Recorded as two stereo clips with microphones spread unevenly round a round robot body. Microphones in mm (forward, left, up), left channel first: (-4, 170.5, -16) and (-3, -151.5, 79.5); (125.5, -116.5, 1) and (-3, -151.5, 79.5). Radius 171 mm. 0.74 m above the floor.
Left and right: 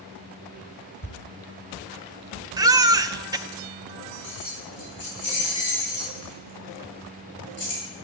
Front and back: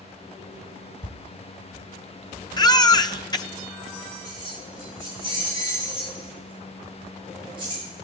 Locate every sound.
1.0 s a thud: 20° left, 3 m
2.6 s a baby crying: straight ahead, 0.8 m
4.2 s keys jangling: 135° left, 9 m